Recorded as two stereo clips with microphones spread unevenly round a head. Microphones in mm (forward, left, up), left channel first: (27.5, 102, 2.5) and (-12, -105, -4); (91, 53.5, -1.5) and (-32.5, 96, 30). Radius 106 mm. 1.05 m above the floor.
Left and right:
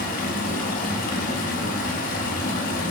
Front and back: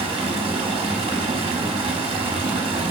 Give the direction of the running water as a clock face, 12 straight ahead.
8 o'clock.